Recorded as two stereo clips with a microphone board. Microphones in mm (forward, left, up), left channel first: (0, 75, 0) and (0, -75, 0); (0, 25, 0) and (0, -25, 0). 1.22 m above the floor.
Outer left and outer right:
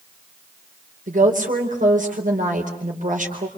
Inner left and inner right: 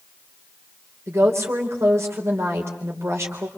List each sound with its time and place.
1.1 s a woman speaking: 60° right (ahead or behind), 4 m